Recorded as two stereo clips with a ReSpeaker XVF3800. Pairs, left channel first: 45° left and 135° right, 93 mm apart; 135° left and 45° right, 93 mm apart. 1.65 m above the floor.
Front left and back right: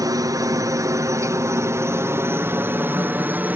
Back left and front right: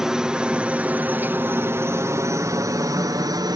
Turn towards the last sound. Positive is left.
turn(degrees=-70)